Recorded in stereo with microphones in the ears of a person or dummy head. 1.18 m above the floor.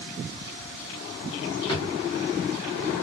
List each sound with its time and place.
1.7 s a drawer: 30° left (ahead or behind), 0.8 m